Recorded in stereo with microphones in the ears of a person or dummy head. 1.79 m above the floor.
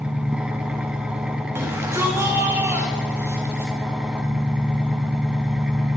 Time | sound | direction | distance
0.0 | an engine running | centre (ahead or behind) | 1.1 m
1.6 | a shout | 10° right (ahead or behind) | 3.5 m